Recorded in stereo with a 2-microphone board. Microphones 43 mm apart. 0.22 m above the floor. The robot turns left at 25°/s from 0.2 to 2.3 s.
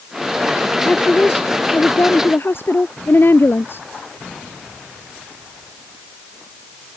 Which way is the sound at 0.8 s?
150° left.